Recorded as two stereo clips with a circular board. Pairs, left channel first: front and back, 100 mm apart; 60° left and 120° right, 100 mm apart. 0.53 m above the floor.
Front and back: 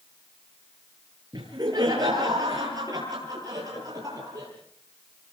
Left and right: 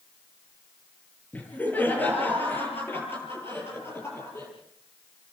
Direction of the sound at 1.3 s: 135° left.